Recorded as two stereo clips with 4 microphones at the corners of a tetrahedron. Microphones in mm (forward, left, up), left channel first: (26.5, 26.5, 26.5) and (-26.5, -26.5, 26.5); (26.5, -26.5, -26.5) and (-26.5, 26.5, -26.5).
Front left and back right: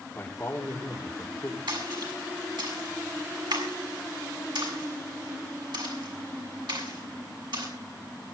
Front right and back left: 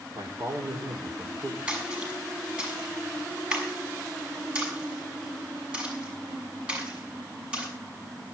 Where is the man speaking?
110° left, 4 m.